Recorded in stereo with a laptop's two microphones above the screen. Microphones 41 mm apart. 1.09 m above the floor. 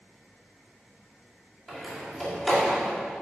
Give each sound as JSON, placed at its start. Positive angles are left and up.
{"t": 1.7, "sound": "a door slam", "side_deg": 0, "distance_m": 2.0}